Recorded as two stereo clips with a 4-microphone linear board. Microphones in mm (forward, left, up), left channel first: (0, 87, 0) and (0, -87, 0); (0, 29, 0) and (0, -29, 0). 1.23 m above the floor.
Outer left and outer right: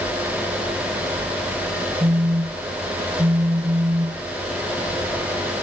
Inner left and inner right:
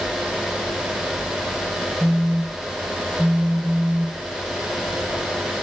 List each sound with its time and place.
2.0 s a phone buzzing: 30° right (ahead or behind)